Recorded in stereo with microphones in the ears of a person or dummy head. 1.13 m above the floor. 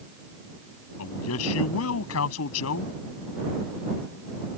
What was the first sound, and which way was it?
A man speaking, 90° left.